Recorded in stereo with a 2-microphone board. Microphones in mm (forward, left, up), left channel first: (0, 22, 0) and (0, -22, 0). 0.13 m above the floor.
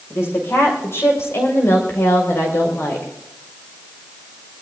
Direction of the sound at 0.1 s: 60° left (ahead or behind).